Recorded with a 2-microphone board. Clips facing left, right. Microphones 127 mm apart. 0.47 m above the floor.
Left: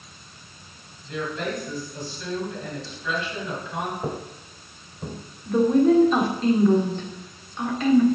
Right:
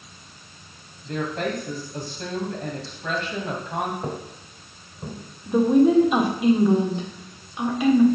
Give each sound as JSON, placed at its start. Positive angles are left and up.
{"t": 1.0, "sound": "a woman speaking", "side_deg": -55, "distance_m": 2.5}
{"t": 4.0, "sound": "footsteps", "side_deg": 5, "distance_m": 0.8}
{"t": 5.5, "sound": "a woman speaking", "side_deg": -10, "distance_m": 1.5}